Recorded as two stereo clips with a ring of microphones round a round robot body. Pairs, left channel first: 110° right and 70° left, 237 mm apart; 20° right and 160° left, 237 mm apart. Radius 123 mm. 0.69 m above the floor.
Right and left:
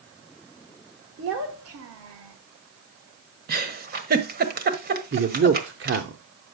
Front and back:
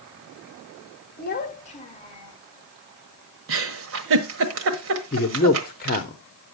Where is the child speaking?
25° left, 1.6 m; by 2.4 s 50° left, 2 m.